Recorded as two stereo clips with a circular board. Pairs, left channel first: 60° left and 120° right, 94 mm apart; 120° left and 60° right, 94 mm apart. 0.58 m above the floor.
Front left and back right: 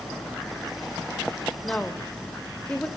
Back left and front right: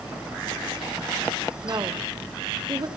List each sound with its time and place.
1.6 s a woman speaking: 20° right, 1.9 m